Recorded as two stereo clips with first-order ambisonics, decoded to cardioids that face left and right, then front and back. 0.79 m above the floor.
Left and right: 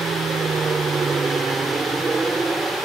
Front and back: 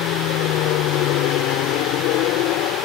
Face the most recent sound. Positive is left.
turn(degrees=-10)